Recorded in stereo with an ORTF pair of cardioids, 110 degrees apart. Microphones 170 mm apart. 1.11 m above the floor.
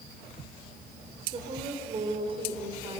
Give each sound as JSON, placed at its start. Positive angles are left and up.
{"t": 1.3, "sound": "a woman speaking", "azimuth_deg": -30, "distance_m": 4.0}